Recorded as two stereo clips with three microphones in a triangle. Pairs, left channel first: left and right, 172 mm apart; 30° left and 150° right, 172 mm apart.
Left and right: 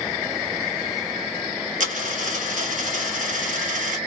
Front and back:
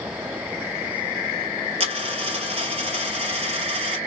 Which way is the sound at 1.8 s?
105° right.